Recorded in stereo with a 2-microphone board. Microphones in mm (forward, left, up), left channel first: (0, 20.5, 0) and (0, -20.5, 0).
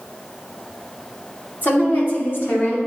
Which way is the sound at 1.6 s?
60° left (ahead or behind).